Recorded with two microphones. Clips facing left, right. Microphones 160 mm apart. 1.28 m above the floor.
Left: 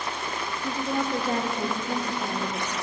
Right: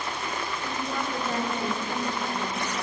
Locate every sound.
0.6 s a woman speaking: 35° left (ahead or behind), 0.8 m